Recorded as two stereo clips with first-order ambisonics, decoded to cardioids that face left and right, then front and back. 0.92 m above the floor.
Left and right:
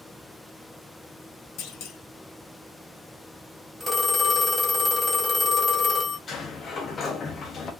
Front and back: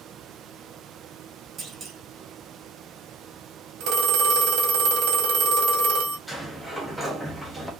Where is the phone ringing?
175° right, 0.7 m.